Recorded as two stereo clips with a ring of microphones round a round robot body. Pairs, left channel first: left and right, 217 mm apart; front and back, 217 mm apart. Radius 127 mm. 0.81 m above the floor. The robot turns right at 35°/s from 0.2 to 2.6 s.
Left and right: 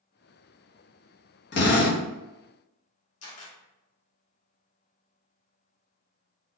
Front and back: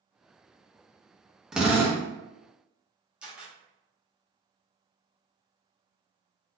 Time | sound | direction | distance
1.5 | a drill | 95° left | 1.1 m
3.2 | a camera shutter | 95° left | 1.2 m